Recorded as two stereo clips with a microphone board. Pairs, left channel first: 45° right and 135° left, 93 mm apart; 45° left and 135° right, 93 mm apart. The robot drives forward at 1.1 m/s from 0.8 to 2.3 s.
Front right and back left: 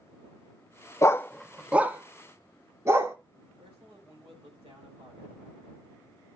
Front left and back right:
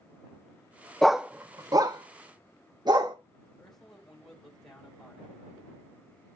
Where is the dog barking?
35° right, 0.7 m; by 3.2 s 170° right, 1.3 m.